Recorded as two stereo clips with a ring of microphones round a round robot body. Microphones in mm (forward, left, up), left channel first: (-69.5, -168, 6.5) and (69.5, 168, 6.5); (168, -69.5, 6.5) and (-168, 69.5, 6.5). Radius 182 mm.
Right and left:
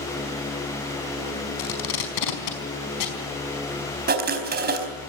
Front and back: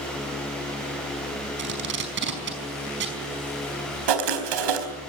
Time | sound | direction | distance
1.6 | tape being pulled | 140° right | 5 m
4.1 | writing | 135° left | 4 m